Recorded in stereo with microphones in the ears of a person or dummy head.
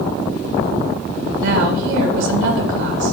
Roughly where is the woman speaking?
Right.